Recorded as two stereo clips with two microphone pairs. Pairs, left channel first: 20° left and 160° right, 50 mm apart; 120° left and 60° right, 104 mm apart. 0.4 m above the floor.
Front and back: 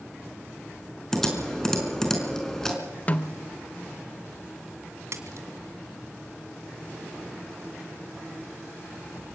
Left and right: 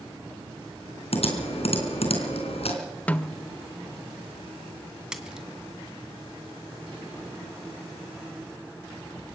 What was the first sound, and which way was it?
Typing on a keyboard, 100° left.